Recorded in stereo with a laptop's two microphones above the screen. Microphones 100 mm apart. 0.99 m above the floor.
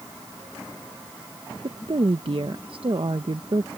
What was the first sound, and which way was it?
A woman speaking, 60° right (ahead or behind).